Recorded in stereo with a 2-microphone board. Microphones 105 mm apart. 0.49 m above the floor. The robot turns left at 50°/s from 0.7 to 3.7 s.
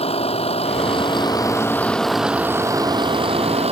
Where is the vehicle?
70° left; by 3.7 s 80° right.